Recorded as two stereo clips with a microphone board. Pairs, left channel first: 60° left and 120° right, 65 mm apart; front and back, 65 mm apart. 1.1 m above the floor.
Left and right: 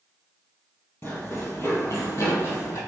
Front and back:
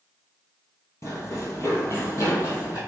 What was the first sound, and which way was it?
Running footsteps, 20° left.